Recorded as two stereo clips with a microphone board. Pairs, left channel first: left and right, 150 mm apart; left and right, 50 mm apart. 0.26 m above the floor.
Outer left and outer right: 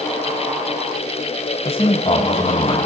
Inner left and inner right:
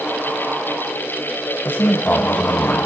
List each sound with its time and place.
1.6 s a man speaking: 40° left (ahead or behind), 1.9 m